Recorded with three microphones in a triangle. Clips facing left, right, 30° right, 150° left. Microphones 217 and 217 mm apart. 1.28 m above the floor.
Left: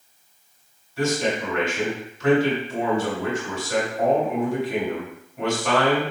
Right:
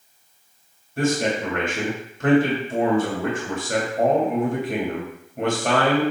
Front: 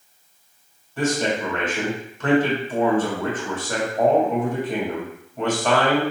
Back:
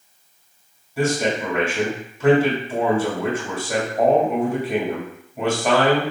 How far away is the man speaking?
About 2.5 m.